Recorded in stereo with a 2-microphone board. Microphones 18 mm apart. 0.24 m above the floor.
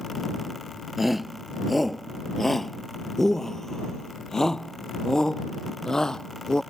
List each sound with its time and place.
1.0 s a shout: 15° right (ahead or behind); by 6.6 s 35° left (ahead or behind)